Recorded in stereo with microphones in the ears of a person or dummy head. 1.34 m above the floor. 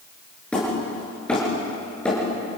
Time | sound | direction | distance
0.5 | hammering | 5° left (ahead or behind) | 7.5 m